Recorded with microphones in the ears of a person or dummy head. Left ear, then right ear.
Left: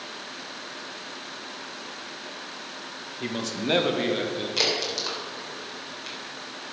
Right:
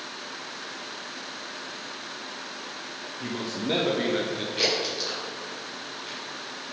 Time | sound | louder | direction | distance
3.2 | a man speaking | left 2 dB | 80° left | 1.3 m
4.6 | a crack | left 1 dB | 75° left (ahead or behind) | 4 m